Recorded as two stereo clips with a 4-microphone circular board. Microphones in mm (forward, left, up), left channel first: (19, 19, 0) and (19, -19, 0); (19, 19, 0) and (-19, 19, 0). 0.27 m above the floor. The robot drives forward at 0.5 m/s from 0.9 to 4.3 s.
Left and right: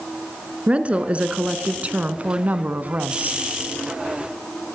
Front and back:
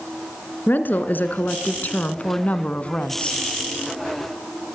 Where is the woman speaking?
30° right, 2.5 m; by 3.4 s 55° right, 1.8 m.